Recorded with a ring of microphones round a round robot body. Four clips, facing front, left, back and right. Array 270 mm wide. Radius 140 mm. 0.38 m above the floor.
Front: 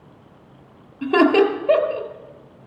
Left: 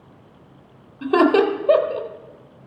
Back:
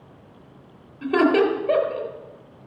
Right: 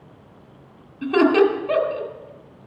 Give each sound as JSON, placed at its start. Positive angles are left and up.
{"t": 1.0, "sound": "laughter", "azimuth_deg": 60, "distance_m": 1.4}